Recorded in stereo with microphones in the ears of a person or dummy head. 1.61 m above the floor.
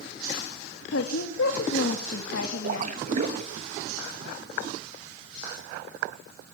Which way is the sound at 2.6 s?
50° right (ahead or behind).